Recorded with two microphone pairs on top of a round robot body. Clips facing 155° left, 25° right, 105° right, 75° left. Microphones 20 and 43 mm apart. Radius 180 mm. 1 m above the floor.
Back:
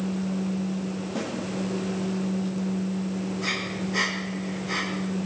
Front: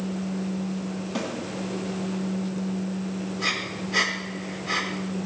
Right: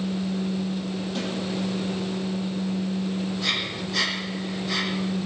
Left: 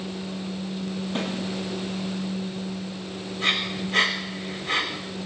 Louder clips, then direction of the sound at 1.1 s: Front 2 dB, left 3 dB; 20° left.